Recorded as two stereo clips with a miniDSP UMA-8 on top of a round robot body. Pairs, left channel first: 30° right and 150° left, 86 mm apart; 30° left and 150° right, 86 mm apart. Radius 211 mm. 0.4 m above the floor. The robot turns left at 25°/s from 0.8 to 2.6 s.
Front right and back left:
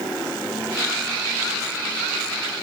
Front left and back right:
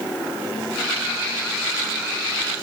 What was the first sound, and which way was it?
Only background noise.